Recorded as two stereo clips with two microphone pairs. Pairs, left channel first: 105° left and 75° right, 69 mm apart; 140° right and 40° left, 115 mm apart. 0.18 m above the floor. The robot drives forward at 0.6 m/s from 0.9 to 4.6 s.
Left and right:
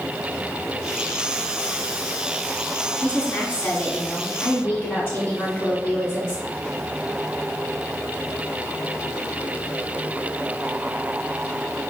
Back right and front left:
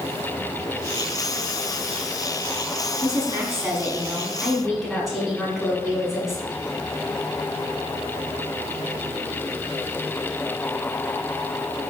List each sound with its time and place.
3.0 s a woman speaking: 50° left, 1.4 m; by 6.4 s 125° left, 1.3 m